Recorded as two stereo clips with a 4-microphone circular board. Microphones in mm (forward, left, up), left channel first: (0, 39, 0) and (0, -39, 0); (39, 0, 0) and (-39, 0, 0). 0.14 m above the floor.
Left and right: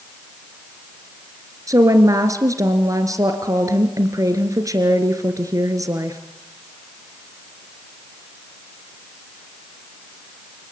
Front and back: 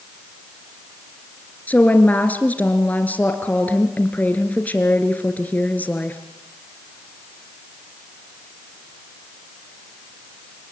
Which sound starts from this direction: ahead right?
A woman speaking, at 1.7 s.